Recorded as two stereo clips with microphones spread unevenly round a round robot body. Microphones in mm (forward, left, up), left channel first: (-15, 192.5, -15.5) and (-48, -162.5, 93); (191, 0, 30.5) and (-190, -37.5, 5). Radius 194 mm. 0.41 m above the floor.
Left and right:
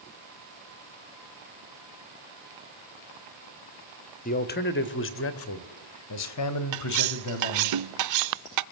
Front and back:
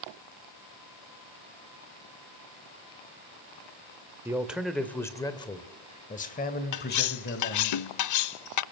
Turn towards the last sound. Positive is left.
turn(degrees=-40)